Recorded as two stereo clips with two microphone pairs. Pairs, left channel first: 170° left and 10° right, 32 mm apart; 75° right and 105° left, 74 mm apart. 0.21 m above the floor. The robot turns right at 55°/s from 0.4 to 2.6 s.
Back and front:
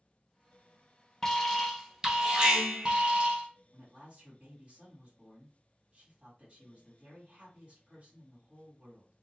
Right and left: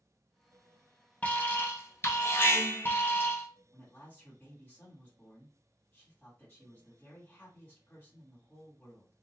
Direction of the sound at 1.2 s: 120° right.